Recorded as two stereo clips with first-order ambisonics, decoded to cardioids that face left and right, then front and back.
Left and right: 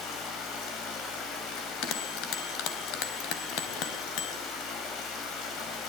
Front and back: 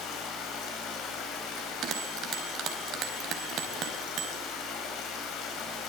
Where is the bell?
125° left, 4.5 m.